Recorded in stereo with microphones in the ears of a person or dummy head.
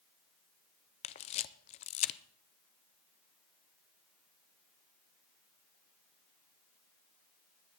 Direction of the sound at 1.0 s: 30° left (ahead or behind).